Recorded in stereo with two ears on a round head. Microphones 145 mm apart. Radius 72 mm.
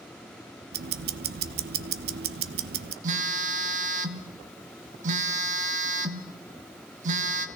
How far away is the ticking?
About 0.7 m.